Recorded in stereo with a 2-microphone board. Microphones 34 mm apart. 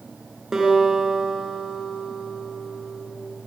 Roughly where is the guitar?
Centre.